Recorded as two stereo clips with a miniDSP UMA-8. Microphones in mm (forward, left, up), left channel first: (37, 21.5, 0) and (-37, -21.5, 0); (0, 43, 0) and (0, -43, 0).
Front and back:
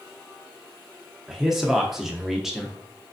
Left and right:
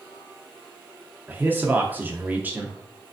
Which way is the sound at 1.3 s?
70° right.